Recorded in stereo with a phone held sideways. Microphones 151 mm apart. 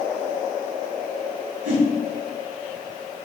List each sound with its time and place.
1.6 s a whoosh: 40° right (ahead or behind), 1.9 m